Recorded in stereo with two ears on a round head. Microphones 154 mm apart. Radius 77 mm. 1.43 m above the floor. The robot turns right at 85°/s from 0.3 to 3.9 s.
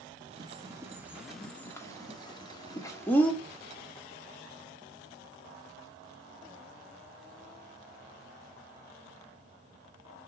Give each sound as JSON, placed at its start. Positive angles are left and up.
{"t": 0.4, "sound": "a bird", "side_deg": -25, "distance_m": 1.0}